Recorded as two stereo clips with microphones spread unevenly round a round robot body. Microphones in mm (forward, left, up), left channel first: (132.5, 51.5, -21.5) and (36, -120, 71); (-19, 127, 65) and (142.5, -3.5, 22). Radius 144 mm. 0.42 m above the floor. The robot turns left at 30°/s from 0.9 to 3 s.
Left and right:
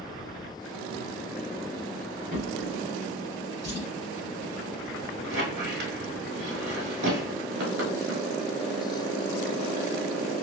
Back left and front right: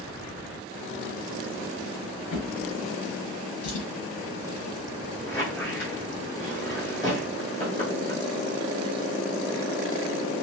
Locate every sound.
2.3 s a drawer: straight behind, 0.9 m; by 3.9 s 160° left, 0.9 m
5.2 s a squeak: 145° right, 1.0 m